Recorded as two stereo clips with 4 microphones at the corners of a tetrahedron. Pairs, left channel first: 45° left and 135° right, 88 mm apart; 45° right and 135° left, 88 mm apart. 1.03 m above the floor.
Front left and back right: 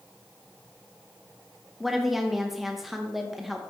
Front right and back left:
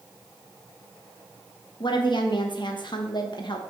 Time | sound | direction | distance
1.8 | a woman speaking | 45° right | 1.0 m